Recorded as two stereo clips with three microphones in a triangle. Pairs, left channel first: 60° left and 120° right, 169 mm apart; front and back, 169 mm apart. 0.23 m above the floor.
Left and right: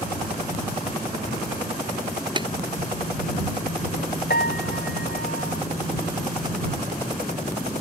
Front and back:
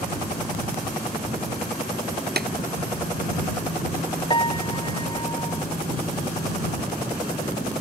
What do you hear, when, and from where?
2.4 s tapping: straight behind
4.3 s a piano: 60° left